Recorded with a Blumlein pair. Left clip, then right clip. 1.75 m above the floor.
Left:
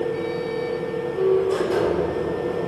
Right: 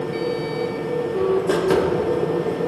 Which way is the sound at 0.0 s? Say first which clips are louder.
Right 1 dB; 45° right.